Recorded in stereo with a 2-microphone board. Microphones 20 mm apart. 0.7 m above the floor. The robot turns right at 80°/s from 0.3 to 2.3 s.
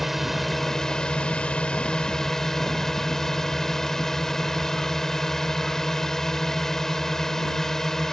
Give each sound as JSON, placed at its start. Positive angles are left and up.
{"t": 0.0, "sound": "a drone", "azimuth_deg": -5}